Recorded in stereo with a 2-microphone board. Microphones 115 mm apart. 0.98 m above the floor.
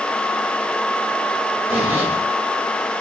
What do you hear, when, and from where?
1.7 s a zipper: 15° right (ahead or behind), 4.5 m